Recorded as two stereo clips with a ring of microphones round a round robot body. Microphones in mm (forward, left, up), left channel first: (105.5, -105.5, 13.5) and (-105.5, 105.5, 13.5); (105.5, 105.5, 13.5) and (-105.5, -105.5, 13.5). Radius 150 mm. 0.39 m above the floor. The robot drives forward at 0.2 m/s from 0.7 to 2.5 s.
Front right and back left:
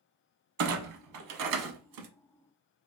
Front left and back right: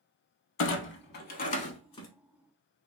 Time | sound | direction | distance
0.6 | a clunk | 95° left | 0.5 m